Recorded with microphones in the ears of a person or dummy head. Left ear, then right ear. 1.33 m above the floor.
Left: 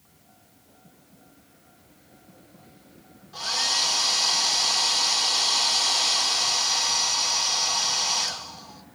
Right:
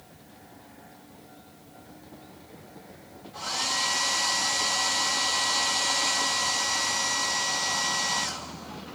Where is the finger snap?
No finger snap in this recording.